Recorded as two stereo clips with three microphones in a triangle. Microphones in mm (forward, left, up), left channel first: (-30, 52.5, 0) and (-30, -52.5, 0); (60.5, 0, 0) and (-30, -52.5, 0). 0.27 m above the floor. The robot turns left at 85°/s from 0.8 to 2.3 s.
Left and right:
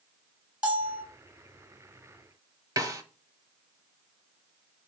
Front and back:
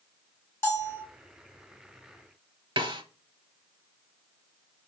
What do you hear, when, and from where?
0.6 s a bell: 20° right, 1.9 m; by 1.0 s 40° right, 1.9 m
2.8 s a snare drum: 135° right, 0.8 m